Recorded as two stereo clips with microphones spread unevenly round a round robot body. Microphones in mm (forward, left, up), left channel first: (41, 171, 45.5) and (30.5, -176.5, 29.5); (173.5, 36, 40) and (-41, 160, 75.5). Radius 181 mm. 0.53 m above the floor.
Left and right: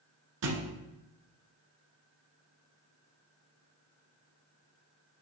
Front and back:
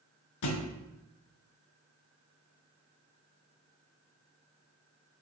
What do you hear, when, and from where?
0.4 s a thud: 45° right, 1.1 m